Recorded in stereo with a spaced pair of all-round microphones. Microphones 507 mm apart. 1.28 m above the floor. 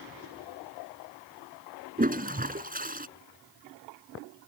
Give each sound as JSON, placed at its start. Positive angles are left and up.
{"t": 2.0, "sound": "a toilet flushing", "side_deg": -15}